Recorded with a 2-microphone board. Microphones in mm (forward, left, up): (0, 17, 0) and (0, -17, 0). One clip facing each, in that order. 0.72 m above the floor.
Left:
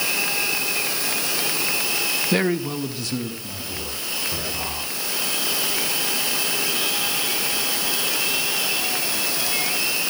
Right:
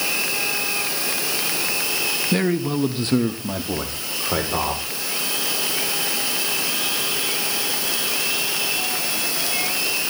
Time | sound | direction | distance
2.3 | a man speaking | 20° left (ahead or behind) | 0.9 m